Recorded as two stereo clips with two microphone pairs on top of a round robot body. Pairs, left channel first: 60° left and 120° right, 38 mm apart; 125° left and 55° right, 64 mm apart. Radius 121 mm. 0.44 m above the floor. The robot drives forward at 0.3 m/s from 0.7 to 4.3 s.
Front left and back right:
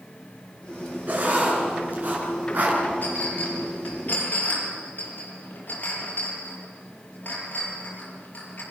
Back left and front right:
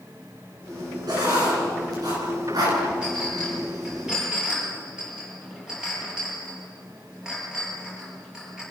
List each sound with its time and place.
1.1 s writing: 70° right, 9 m; by 2.8 s 75° right, 8.5 m
3.0 s a clink: 20° left, 8.5 m